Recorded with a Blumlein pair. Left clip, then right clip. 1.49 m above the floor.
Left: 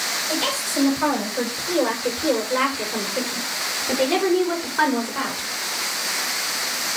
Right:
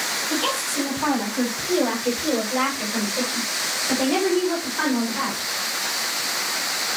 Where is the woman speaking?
55° left, 6 m; by 5.5 s 20° left, 4.5 m.